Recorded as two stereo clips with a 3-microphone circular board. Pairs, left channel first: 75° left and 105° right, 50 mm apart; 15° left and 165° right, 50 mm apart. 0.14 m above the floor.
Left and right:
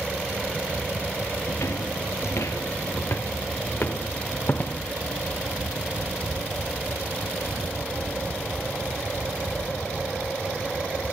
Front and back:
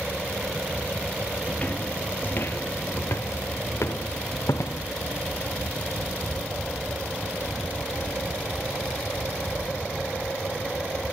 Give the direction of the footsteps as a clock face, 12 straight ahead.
9 o'clock.